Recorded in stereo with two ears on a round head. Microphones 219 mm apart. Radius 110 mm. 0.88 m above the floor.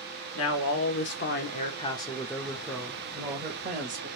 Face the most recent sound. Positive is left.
turn(degrees=-35)  # may be behind; listen again after turning